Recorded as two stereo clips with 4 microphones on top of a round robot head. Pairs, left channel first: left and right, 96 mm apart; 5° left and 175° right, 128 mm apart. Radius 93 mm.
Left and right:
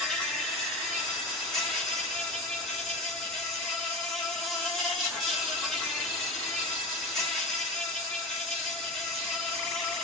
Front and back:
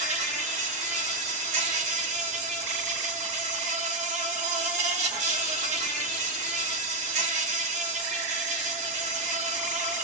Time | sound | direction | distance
0.0 | an insect | 175° left | 1.8 m